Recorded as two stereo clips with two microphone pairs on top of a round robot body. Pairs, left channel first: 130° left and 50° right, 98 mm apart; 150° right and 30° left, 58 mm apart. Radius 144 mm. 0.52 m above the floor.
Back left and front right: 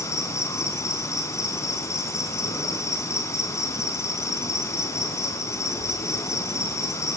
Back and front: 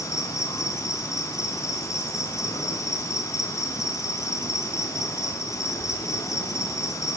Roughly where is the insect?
Behind.